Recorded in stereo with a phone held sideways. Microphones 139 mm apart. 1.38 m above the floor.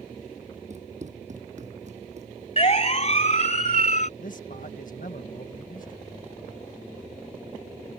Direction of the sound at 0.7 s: 55° right (ahead or behind).